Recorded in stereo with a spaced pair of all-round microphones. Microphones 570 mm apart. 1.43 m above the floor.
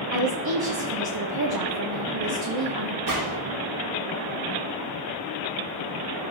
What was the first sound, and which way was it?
A woman speaking, 40° right (ahead or behind).